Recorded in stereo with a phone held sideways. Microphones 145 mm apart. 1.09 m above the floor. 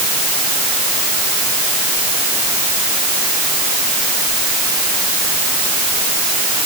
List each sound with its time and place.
Only background noise.